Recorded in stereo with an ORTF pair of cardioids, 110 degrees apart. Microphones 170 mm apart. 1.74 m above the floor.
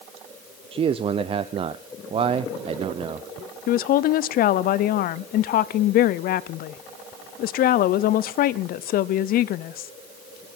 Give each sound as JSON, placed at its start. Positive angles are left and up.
{"t": 0.7, "sound": "a man speaking", "azimuth_deg": -35, "distance_m": 0.7}
{"t": 3.7, "sound": "a woman speaking", "azimuth_deg": 65, "distance_m": 0.8}